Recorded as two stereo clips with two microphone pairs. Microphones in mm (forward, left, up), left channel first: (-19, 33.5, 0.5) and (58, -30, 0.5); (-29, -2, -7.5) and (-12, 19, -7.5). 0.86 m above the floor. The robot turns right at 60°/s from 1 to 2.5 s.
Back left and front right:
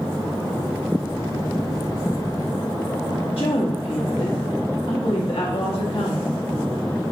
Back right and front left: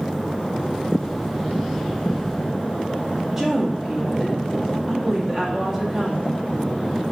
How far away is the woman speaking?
About 1.2 m.